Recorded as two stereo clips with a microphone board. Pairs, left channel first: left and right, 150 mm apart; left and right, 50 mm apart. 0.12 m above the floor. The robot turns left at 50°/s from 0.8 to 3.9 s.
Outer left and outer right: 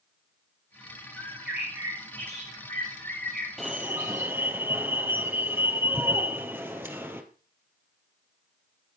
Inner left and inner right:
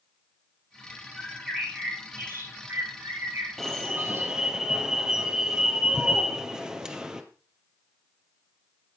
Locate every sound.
1.2 s a bird: 10° left, 5 m; by 4.3 s 125° right, 5 m
3.6 s an alarm: centre (ahead or behind), 2 m; by 7.2 s 15° right (ahead or behind), 2 m